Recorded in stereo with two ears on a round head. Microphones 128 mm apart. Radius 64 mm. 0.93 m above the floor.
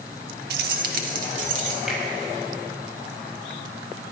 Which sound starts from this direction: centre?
A finger snap, at 1.9 s.